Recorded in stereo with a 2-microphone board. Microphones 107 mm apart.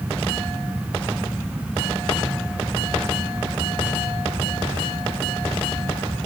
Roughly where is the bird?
No bird in this recording.